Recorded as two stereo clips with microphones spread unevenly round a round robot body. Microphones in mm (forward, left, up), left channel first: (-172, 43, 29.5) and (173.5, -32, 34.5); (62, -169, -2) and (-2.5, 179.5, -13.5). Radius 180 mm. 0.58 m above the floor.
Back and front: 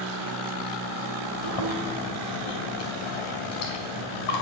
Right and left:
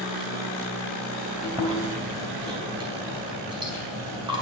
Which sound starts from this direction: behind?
Chewing, at 1.4 s.